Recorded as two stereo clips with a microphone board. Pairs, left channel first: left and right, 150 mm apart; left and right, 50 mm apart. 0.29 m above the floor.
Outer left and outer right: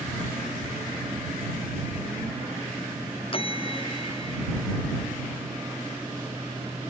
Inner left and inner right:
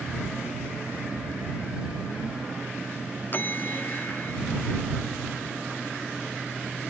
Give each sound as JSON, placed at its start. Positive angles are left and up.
{"t": 3.3, "sound": "a bell", "side_deg": 40}